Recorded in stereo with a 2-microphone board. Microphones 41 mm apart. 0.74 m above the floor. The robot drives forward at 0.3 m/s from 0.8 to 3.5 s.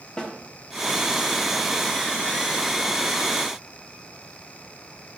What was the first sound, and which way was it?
A snare drum, 20° left (ahead or behind).